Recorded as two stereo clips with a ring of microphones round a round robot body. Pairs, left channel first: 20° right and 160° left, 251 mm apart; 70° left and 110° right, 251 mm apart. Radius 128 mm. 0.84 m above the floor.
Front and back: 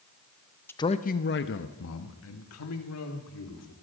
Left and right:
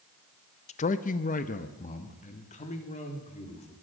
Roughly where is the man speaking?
Ahead left.